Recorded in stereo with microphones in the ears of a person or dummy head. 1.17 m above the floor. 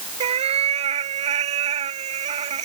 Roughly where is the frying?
I don't hear frying.